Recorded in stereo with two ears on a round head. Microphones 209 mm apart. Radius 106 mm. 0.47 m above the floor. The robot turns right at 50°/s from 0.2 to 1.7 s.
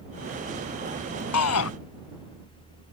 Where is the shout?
75° left (ahead or behind); by 1.7 s 70° left (ahead or behind).